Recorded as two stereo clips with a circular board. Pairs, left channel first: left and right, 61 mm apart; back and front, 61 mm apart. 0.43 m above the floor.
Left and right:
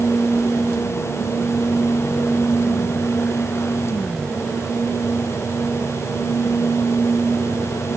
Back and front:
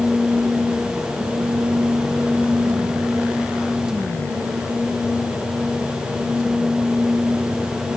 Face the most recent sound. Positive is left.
No sound to turn to.